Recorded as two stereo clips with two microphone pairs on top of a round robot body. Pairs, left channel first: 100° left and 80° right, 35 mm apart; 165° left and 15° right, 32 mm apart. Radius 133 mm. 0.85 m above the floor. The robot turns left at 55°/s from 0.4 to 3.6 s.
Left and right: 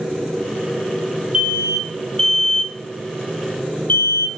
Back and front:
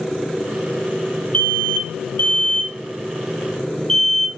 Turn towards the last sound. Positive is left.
turn(degrees=90)